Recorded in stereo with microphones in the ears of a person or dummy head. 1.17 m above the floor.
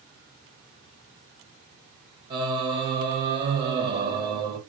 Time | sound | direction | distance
2.3 | singing | 30° right (ahead or behind) | 0.9 m